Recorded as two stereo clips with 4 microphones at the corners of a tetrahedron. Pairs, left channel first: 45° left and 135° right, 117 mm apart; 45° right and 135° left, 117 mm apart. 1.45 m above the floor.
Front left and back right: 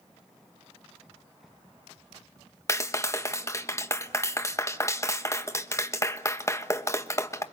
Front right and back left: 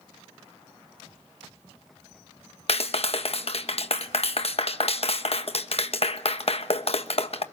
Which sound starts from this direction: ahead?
A clap, at 2.7 s.